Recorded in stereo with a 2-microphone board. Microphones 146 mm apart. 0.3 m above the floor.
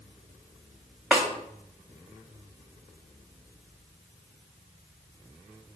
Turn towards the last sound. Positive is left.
turn(degrees=-10)  # may be behind; listen again after turning